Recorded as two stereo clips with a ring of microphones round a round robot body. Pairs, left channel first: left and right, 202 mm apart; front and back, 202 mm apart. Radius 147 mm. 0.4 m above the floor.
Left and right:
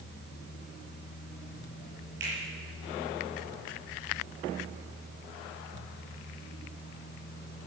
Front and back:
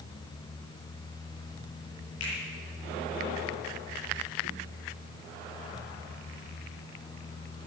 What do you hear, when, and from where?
2.2 s a finger snap: 40° right, 6.5 m